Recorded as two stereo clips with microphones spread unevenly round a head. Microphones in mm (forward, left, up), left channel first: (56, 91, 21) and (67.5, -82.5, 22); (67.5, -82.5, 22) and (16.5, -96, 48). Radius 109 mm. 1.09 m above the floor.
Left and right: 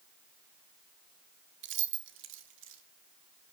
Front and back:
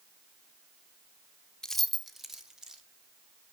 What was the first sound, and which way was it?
Keys jangling, 75° right.